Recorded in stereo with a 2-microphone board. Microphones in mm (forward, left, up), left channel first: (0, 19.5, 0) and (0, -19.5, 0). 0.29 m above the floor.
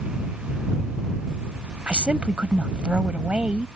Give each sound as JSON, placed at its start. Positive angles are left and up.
{"t": 1.9, "sound": "a woman speaking", "side_deg": -30}